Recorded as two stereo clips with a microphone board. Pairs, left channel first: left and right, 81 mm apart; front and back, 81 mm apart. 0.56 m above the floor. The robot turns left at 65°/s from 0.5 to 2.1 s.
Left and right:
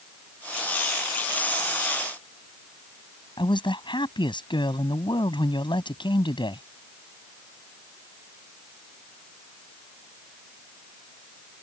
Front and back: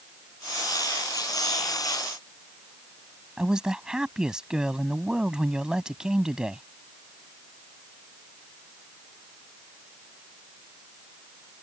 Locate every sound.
3.4 s a man speaking: 100° left